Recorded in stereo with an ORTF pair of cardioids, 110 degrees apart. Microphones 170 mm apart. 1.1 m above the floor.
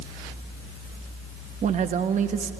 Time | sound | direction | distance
1.6 | a man speaking | 45° right | 1.1 m